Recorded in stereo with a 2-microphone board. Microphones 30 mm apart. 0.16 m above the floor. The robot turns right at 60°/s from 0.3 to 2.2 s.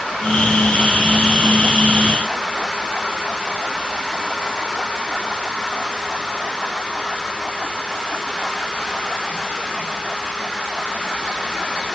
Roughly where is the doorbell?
I don't hear a doorbell.